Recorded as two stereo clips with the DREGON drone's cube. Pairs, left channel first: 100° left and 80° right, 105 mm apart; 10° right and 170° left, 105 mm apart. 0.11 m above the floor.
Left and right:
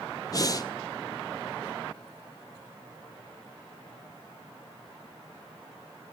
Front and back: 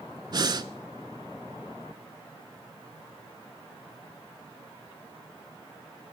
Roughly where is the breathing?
Behind left.